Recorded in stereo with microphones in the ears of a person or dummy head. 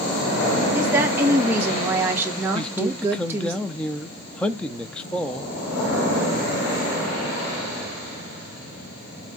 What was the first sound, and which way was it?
A woman speaking, 10° right (ahead or behind).